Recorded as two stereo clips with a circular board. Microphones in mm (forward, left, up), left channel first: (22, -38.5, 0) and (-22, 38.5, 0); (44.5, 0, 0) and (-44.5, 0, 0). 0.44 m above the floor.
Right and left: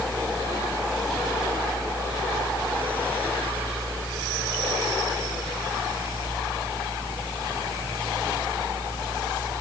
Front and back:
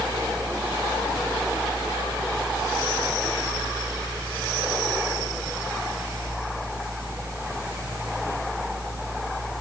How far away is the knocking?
I don't hear knocking.